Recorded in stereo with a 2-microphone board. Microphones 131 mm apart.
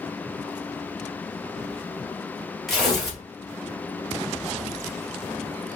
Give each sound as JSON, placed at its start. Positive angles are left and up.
{"t": 2.7, "sound": "tearing paper", "side_deg": 0, "distance_m": 1.6}